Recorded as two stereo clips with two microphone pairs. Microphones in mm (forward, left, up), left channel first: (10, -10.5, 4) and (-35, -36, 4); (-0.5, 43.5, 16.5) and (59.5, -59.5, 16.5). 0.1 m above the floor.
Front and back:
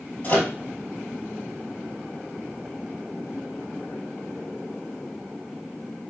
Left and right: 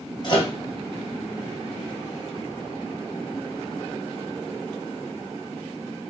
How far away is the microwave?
About 1.8 m.